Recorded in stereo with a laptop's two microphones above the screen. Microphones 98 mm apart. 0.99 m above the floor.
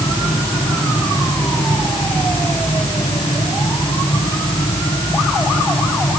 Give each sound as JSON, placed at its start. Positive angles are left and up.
{"t": 0.0, "sound": "a fan", "side_deg": 80}